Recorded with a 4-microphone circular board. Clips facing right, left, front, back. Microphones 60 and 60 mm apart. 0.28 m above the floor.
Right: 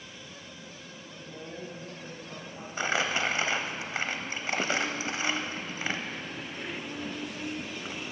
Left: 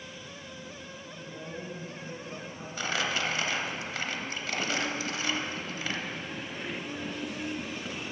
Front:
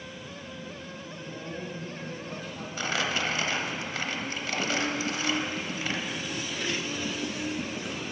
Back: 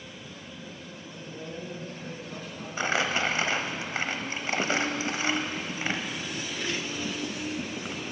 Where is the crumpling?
135° right, 0.6 m.